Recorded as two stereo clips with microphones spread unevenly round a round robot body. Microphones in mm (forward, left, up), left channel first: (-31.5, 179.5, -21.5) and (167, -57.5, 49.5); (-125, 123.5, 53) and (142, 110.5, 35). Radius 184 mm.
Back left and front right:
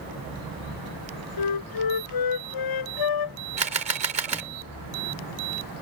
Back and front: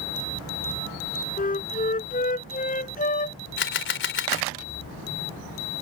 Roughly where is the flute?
Behind left.